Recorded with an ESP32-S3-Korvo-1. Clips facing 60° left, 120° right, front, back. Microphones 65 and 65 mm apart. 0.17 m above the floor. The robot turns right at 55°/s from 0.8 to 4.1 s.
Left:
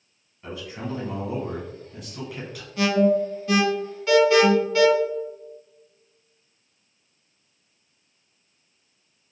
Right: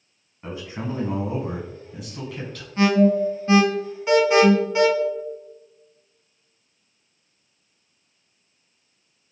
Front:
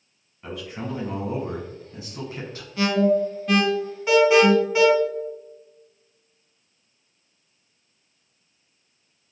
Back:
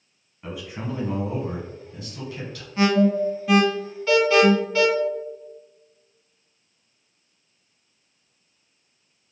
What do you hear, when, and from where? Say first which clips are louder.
0.4 s a man speaking: right 2 dB, even; 110° right, 1.3 m; by 2.7 s 10° right, 1.3 m
2.8 s an alarm: right 2 dB, even; 140° right, 0.9 m; by 4.9 s 65° right, 0.9 m